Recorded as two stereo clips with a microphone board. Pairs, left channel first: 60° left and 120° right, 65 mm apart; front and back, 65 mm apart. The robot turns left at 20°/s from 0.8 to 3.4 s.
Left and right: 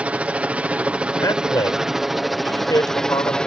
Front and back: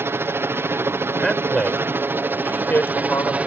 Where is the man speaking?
85° left; by 3.4 s 45° left.